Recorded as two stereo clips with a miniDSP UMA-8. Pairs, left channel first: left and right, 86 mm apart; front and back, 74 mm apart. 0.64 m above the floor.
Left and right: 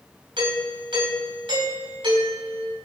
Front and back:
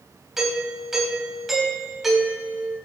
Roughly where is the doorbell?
Right.